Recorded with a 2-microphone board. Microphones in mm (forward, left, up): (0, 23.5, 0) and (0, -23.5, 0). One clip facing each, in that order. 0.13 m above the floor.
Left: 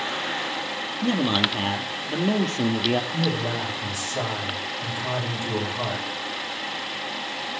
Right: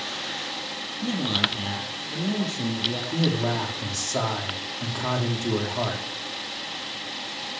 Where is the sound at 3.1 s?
70° right (ahead or behind), 7.5 m.